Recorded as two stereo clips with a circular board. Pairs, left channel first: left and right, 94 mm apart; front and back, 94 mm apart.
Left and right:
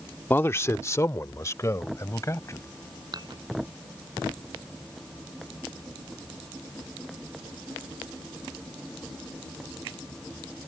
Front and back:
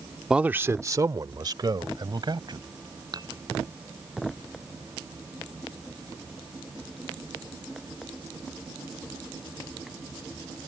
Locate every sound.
0.3 s a man speaking: 110° left; by 2.6 s 145° left
3.1 s dishes clattering: 135° right